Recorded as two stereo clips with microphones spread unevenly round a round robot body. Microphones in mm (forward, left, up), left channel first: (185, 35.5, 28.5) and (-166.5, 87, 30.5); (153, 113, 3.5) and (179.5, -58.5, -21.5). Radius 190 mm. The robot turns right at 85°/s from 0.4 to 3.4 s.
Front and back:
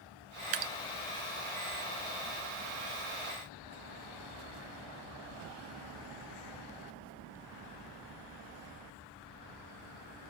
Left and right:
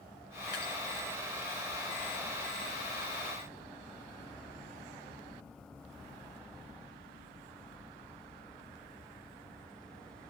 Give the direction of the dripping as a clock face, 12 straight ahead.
7 o'clock.